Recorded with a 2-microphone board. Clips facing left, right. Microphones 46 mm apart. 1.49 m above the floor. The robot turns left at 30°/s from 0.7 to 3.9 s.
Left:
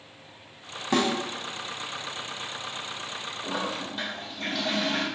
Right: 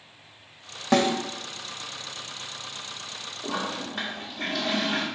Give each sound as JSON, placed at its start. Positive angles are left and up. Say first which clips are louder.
{"t": 0.9, "sound": "a snare drum", "louder": "right 3 dB", "side_deg": -75, "distance_m": 1.7}
{"t": 3.4, "sound": "a toilet flushing", "louder": "right 1 dB", "side_deg": -60, "distance_m": 2.0}